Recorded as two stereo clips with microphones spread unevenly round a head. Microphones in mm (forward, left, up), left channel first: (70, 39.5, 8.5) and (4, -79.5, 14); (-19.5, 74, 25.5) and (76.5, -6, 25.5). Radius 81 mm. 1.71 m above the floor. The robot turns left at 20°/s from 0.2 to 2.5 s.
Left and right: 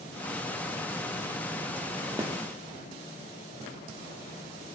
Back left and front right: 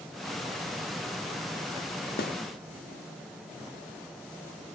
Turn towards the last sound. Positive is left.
turn(degrees=160)